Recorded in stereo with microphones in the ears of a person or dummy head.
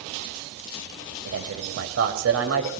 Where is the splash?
No splash in this recording.